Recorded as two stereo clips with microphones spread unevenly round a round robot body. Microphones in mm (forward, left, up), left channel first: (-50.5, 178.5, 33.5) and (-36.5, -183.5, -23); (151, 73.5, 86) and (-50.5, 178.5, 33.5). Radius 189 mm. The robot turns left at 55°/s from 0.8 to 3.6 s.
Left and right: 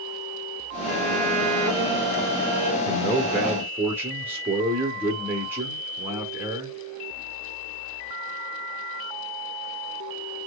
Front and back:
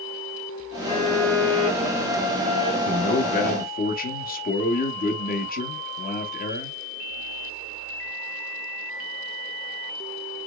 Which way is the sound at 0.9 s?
100° right.